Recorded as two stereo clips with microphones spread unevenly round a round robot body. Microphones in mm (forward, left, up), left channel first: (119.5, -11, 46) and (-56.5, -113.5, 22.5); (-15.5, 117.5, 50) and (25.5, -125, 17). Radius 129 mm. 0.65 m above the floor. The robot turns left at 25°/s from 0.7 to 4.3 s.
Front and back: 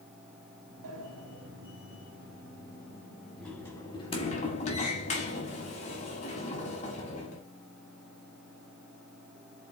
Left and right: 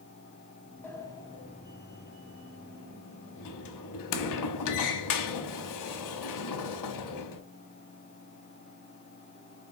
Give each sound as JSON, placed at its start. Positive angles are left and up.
{"t": 0.8, "sound": "a sliding door", "azimuth_deg": 180, "distance_m": 1.3}